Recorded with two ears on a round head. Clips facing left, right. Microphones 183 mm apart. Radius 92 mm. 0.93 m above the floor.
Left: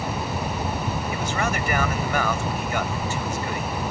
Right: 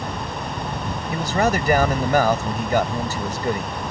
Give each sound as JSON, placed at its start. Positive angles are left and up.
{"t": 1.1, "sound": "a man speaking", "side_deg": -35}